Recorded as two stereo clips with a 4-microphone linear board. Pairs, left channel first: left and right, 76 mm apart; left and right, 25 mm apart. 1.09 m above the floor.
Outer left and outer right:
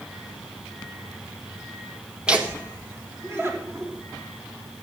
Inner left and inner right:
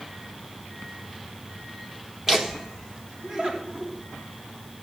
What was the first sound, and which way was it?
Laughter, 15° right (ahead or behind).